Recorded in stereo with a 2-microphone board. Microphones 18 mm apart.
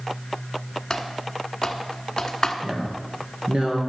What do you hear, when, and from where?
0.9 s typing on a keyboard: 25° left (ahead or behind), 1.2 m
2.6 s a woman speaking: 60° right (ahead or behind), 3 m